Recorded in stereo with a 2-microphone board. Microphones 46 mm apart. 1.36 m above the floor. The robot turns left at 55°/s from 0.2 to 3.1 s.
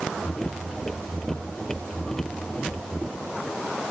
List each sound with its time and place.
Only background noise.